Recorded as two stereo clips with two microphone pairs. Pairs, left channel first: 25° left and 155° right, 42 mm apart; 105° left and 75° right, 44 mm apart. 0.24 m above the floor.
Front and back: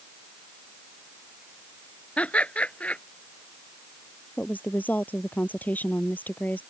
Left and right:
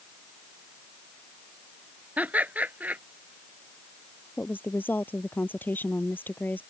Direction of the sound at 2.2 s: 30° right.